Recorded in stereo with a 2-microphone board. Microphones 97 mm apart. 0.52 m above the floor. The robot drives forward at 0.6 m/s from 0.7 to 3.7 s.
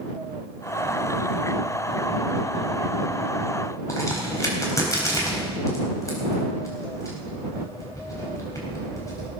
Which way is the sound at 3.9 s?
35° left (ahead or behind).